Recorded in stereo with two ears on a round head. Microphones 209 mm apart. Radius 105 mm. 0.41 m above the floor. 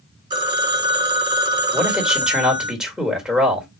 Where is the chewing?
I don't hear chewing.